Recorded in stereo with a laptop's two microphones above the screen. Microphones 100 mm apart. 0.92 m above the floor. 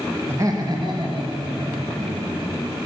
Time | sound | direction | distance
0.3 | laughter | 25° right (ahead or behind) | 0.6 m